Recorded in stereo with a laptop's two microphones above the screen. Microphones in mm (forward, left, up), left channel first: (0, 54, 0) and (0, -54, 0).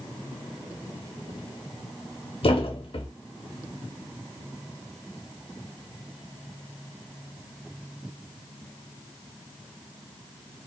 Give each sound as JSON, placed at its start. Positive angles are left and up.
{"t": 2.4, "sound": "a thud", "side_deg": 60, "distance_m": 0.7}